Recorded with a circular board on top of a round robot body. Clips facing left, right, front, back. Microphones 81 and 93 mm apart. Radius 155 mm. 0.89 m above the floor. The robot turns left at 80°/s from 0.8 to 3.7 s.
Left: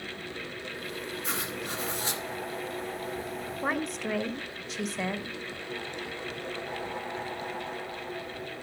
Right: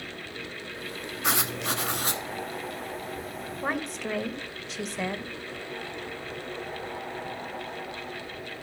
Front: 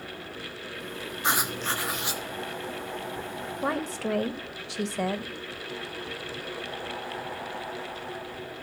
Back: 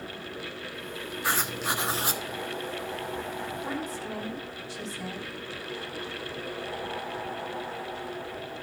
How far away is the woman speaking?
About 1.6 m.